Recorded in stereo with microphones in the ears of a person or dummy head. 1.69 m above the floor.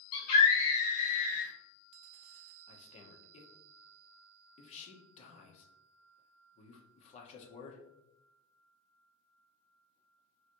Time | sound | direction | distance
0.1 | a scream | 45° left (ahead or behind) | 1.7 m
2.7 | a man speaking | 30° left (ahead or behind) | 0.8 m